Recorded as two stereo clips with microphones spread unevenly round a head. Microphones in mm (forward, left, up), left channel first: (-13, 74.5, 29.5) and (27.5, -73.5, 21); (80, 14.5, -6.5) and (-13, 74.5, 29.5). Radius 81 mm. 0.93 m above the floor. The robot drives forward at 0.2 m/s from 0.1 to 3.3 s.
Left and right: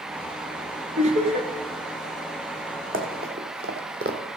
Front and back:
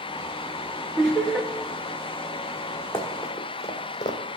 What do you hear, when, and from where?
1.0 s laughter: 120° right, 1.5 m; by 1.5 s 125° right, 1.5 m
2.9 s running footsteps: 110° right, 2 m; by 4.2 s 70° right, 1.4 m